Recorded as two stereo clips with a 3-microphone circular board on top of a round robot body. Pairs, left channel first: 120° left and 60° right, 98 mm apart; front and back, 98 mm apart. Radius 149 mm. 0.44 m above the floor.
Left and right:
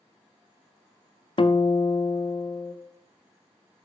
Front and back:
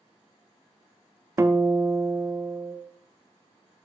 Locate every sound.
1.4 s a guitar: 120° left, 0.7 m